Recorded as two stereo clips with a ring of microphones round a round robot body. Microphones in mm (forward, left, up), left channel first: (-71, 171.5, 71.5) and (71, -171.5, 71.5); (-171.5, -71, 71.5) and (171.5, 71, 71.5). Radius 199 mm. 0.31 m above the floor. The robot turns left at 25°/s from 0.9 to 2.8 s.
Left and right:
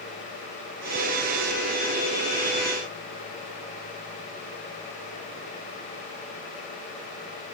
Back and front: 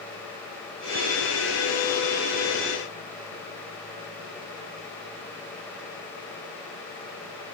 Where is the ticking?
I don't hear ticking.